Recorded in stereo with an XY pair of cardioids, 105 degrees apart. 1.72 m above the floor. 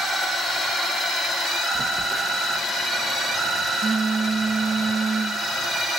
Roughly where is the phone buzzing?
Ahead right.